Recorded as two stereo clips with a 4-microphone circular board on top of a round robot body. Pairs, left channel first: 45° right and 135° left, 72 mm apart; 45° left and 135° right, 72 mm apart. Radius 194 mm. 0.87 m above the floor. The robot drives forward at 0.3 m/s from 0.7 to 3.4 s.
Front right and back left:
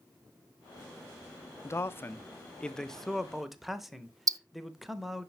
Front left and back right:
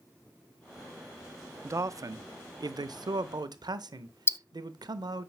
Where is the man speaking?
90° right, 0.6 m; by 5.3 s 140° right, 0.8 m.